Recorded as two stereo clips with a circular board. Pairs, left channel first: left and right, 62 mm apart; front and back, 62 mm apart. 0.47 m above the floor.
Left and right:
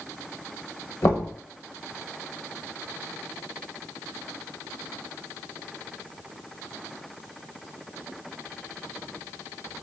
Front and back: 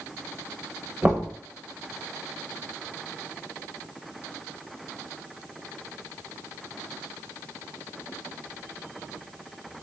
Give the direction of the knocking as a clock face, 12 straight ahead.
8 o'clock.